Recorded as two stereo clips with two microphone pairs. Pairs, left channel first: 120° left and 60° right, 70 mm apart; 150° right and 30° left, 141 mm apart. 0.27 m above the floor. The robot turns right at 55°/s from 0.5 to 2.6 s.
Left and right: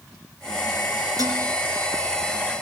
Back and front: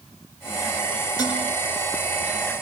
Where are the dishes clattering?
90° right, 7.5 m; by 1.4 s 75° right, 7.5 m.